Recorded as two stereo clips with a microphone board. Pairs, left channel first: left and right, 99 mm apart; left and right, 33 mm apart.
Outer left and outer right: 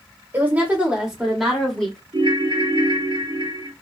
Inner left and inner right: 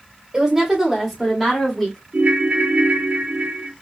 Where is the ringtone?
55° right (ahead or behind), 0.6 m.